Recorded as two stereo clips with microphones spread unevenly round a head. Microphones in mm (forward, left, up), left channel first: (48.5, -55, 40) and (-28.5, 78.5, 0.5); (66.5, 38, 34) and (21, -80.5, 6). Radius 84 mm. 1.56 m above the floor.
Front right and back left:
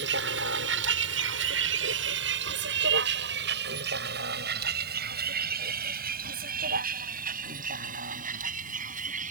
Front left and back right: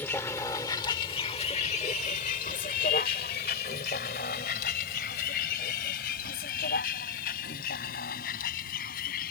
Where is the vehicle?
145° left; by 9.3 s 80° left.